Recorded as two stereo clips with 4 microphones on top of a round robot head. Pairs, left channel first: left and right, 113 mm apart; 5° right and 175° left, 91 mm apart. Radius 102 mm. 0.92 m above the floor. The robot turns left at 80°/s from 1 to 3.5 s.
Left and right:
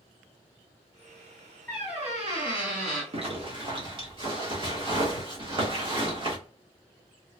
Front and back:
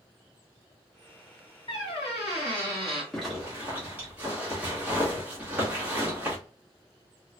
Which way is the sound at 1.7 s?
10° left.